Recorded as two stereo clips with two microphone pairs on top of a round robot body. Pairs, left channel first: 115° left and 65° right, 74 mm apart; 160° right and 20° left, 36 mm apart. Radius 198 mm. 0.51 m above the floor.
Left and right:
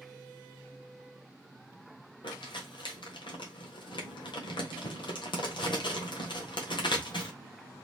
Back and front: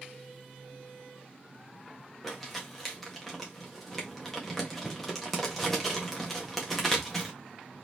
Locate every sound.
2.2 s crumpling: 115° left, 1.4 m